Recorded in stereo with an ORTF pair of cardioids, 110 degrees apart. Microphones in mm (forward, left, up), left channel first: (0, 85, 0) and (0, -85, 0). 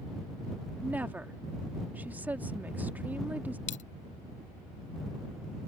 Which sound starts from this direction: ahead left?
A dropped coin, at 3.7 s.